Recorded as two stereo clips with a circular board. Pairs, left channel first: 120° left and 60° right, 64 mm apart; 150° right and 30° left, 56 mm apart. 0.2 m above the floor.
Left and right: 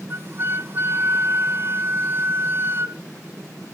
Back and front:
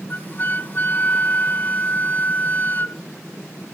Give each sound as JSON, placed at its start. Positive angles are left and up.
{"t": 0.1, "sound": "a flute", "azimuth_deg": -100, "distance_m": 0.6}